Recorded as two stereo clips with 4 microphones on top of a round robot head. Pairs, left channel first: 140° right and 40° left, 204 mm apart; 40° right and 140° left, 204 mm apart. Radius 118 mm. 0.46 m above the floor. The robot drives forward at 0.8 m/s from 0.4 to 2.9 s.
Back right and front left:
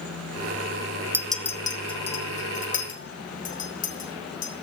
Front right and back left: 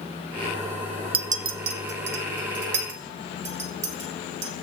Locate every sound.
1.1 s a clink: 110° left, 0.6 m; by 4.5 s 170° left, 1.6 m